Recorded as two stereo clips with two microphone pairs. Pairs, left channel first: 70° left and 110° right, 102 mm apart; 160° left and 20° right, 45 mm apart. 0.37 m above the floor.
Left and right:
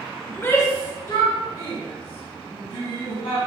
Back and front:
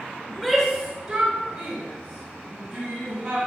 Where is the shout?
105° left, 0.9 m; by 3.4 s 25° left, 3 m.